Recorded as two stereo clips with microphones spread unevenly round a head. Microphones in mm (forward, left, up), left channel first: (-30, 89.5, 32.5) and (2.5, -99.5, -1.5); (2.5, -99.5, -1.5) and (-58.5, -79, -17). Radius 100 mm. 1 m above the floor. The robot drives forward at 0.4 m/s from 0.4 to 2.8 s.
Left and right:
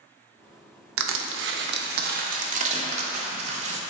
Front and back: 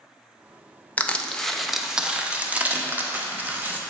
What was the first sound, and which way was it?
Crushing, 90° right.